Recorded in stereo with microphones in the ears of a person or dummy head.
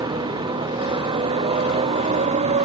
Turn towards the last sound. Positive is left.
turn(degrees=-35)  # may be behind; listen again after turning